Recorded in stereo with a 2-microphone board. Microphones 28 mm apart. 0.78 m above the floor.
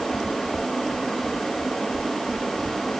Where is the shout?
No shout in this recording.